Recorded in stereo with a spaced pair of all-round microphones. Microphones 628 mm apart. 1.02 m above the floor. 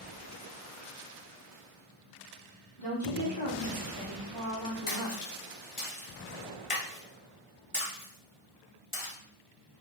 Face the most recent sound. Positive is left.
turn(degrees=55)  # may be behind; listen again after turning